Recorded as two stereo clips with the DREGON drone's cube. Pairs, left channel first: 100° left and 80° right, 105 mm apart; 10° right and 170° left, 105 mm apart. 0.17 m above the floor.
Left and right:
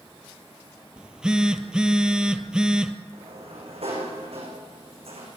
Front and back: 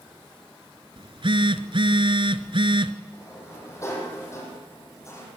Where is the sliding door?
70° right, 7.5 m.